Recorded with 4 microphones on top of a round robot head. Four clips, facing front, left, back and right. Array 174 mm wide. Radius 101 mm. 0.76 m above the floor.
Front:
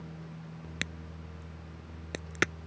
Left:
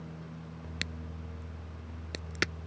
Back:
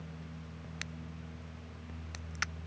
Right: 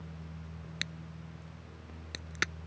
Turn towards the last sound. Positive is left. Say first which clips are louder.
# left 2 dB, front 5 dB
turn(degrees=20)